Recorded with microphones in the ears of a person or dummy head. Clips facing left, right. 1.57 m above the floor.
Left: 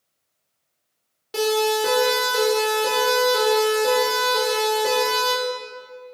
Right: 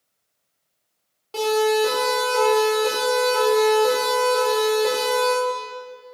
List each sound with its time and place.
1.3 s a siren: 20° left (ahead or behind), 5 m; by 5.3 s 5° left (ahead or behind), 7.5 m